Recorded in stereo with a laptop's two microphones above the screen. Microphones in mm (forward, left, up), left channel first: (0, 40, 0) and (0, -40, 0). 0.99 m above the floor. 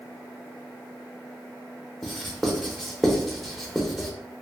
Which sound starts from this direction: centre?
Writing, at 2.0 s.